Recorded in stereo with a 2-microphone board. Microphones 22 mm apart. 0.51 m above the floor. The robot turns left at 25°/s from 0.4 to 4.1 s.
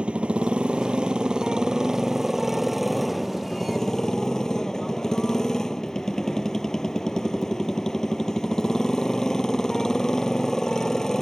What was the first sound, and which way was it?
A motorcycle, 110° right.